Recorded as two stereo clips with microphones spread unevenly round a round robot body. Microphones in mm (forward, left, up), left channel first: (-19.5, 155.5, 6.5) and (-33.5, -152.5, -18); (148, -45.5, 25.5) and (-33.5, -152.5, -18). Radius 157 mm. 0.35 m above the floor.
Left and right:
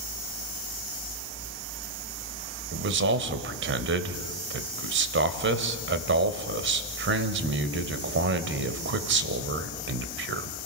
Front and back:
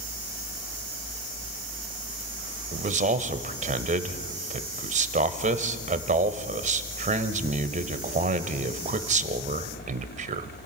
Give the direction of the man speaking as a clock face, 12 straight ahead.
4 o'clock.